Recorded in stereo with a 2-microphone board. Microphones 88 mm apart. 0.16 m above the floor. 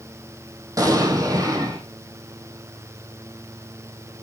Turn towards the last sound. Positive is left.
turn(degrees=-40)  # may be behind; listen again after turning